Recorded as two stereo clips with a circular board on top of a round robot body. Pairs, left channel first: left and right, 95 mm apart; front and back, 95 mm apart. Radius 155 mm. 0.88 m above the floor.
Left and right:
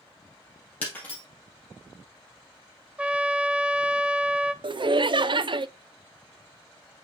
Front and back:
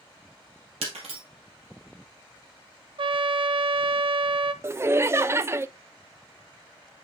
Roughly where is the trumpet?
Behind.